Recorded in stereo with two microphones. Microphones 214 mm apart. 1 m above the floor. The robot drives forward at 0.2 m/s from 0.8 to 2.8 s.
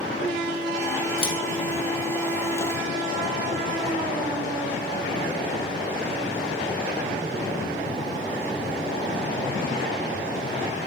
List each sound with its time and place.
1.2 s scissors: 25° left (ahead or behind), 0.7 m